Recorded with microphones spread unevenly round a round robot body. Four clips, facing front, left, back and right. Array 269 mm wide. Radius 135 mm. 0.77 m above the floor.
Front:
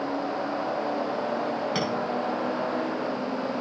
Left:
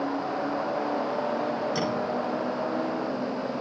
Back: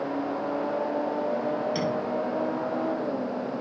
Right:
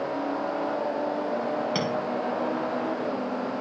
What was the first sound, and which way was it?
A clink, 45° right.